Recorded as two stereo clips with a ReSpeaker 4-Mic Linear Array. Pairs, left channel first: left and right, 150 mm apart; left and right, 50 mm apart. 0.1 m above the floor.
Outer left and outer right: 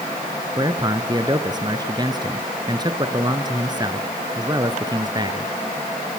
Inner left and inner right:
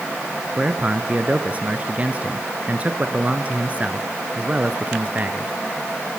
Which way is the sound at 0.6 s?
30° right (ahead or behind).